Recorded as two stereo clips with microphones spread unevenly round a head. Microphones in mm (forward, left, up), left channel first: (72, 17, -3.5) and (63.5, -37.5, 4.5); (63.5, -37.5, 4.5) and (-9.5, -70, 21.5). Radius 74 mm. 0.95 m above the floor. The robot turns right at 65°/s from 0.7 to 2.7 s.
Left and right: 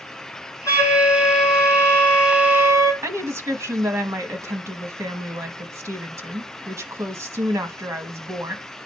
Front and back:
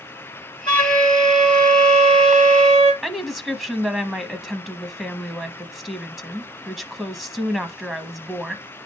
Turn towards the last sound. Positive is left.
turn(degrees=-70)